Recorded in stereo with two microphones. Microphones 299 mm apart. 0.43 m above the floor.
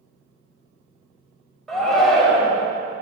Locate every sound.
1.7 s a shout: centre (ahead or behind), 2.5 m